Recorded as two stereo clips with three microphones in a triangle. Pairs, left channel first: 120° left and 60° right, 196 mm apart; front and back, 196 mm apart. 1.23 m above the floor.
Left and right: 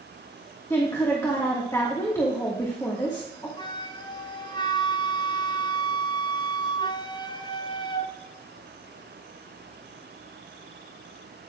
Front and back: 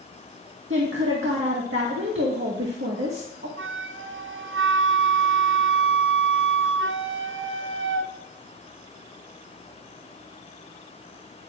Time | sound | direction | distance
0.7 | a woman speaking | 165° right | 1.7 m
3.6 | a flute | 175° right | 0.5 m